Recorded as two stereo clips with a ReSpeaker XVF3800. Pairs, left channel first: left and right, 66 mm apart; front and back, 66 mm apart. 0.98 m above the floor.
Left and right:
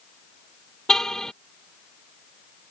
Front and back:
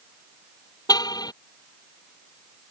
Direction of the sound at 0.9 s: 10° left.